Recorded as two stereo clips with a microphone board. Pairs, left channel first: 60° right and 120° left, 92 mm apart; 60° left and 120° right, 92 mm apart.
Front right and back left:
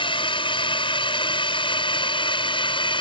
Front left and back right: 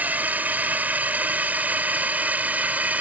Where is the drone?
50° right; by 3.0 s 45° right.